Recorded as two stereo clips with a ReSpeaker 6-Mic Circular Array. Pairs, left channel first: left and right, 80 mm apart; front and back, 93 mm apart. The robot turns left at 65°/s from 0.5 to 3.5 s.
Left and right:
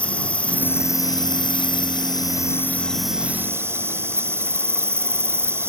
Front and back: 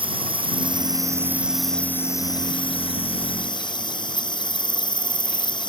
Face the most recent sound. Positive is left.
turn(degrees=-30)